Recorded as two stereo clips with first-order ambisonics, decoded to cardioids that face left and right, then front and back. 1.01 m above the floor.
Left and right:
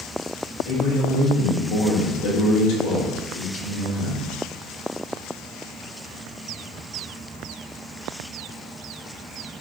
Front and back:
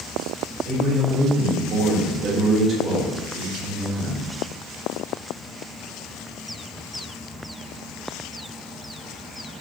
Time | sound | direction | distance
0.7 | a man speaking | 120° left | 3.5 m